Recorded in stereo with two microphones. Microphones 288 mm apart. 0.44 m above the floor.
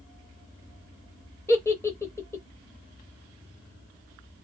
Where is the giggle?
10° left (ahead or behind), 0.6 m.